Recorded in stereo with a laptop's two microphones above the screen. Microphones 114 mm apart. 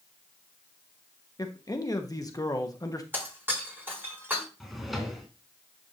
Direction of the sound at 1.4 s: 30° left (ahead or behind).